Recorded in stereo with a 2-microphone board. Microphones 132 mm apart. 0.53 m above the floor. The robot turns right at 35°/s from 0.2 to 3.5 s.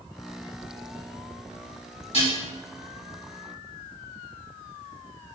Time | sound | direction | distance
2.1 | dishes clattering | 50° left (ahead or behind) | 1.6 m